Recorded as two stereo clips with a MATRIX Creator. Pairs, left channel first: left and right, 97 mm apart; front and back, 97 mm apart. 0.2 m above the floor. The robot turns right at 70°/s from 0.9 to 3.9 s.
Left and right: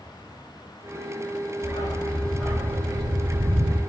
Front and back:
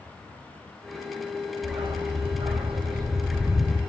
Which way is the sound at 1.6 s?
125° left.